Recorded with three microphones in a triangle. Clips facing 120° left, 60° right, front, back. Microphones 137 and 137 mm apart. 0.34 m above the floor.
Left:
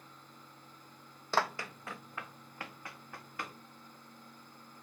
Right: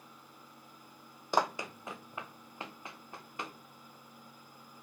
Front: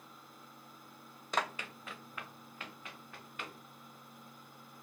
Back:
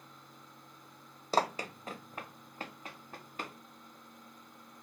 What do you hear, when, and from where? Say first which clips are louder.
1.3 s running footsteps: right 2 dB, back 6 dB; 135° right, 0.6 m; by 3.6 s 130° right, 3 m